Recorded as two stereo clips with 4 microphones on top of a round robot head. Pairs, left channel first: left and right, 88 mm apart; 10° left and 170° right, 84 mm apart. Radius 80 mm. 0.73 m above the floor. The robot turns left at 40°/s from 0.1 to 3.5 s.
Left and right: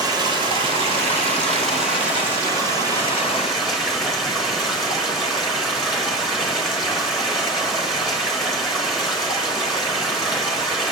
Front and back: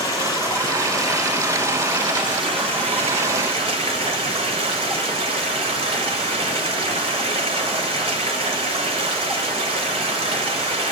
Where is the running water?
40° right, 1.1 m; by 10.9 s straight behind, 1.1 m.